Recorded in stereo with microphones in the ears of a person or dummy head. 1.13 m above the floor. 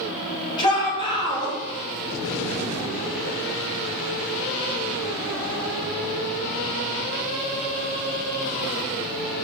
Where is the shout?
30° left (ahead or behind), 4 m.